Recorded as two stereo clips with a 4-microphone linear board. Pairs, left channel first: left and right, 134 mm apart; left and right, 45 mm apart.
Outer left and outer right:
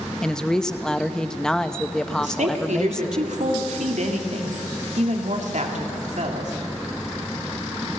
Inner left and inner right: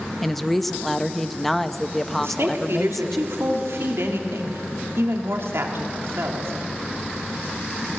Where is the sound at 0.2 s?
5° left (ahead or behind), 0.7 m.